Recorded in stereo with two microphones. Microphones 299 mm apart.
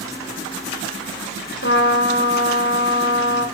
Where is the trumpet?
45° left (ahead or behind), 1.3 m.